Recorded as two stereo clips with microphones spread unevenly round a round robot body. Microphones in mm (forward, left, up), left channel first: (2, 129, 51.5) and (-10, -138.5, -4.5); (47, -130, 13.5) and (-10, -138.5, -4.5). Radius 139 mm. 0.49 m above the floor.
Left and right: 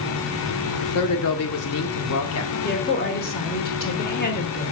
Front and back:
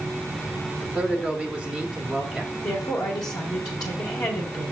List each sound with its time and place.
0.8 s a man speaking: 105° left, 1.3 m
2.6 s a woman speaking: 30° left, 1.8 m